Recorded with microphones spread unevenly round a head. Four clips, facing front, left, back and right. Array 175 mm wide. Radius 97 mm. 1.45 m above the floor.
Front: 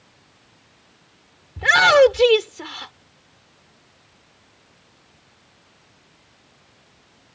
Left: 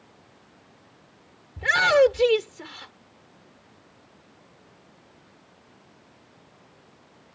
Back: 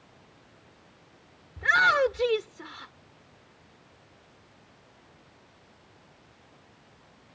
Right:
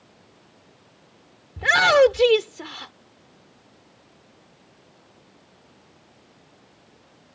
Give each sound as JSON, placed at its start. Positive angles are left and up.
{"t": 1.6, "sound": "a shout", "azimuth_deg": -75}